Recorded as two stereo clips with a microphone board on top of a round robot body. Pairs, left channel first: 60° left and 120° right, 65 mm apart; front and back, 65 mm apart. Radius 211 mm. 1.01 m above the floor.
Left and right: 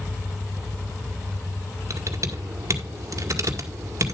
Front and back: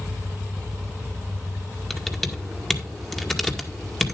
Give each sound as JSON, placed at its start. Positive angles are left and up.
{"t": 1.9, "sound": "typing on a keyboard", "azimuth_deg": -85, "distance_m": 1.9}